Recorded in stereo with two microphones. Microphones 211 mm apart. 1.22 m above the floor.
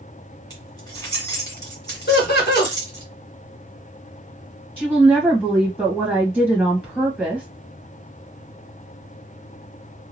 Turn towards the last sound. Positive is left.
turn(degrees=5)  # may be behind; listen again after turning